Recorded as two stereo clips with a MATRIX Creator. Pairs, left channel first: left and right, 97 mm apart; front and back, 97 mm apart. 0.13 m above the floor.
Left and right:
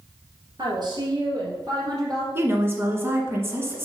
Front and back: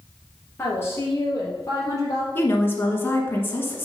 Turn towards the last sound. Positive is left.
turn(degrees=-45)